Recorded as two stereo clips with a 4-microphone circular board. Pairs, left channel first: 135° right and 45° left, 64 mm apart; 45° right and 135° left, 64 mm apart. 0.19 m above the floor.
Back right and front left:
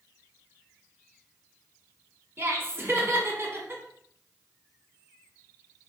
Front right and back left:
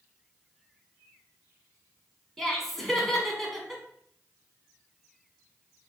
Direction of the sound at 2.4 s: 40° left.